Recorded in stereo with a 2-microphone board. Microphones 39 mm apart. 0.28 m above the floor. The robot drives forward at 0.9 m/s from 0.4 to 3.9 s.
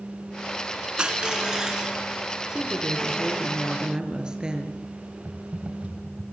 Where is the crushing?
25° right (ahead or behind), 2 m; by 2.0 s 15° right (ahead or behind), 3 m.